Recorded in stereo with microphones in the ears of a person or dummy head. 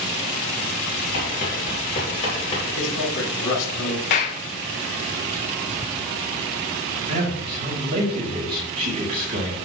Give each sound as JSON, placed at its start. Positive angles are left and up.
{"t": 1.1, "sound": "running footsteps", "side_deg": 35, "distance_m": 2.5}
{"t": 2.8, "sound": "a man speaking", "side_deg": 80, "distance_m": 3.5}
{"t": 4.1, "sound": "a clap", "side_deg": 30, "distance_m": 0.9}
{"t": 7.1, "sound": "a man speaking", "side_deg": -45, "distance_m": 2.5}